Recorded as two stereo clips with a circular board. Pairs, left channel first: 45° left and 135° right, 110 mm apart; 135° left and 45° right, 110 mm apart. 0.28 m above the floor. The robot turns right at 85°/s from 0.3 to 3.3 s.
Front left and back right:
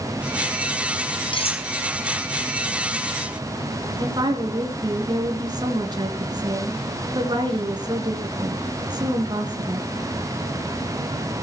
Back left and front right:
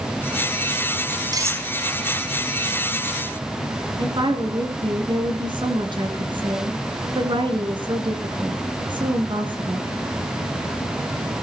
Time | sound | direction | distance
1.3 | cutlery clinking | 5° left | 3 m
4.0 | a woman speaking | 85° right | 3.5 m